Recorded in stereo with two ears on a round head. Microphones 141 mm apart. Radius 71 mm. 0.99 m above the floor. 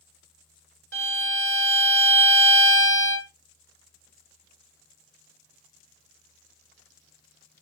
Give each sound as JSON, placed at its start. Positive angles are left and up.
{"t": 0.9, "sound": "a violin", "side_deg": -70, "distance_m": 0.6}